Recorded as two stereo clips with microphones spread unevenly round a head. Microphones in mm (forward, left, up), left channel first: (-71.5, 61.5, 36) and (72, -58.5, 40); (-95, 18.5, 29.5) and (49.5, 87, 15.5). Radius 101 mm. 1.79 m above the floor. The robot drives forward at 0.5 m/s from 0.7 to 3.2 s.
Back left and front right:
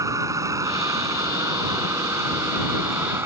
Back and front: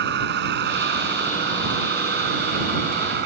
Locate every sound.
0.0 s a vehicle: 35° left; by 3.3 s 40° left